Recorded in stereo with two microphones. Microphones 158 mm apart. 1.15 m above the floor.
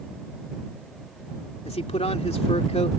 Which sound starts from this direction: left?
A man speaking, at 1.6 s.